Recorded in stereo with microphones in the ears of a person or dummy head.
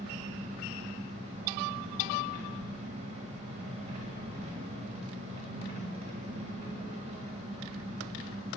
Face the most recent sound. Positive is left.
turn(degrees=-30)  # may be behind; listen again after turning